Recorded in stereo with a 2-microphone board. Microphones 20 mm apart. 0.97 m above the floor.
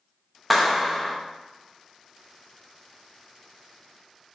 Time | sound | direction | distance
0.5 | a clap | 5° left (ahead or behind) | 1.1 m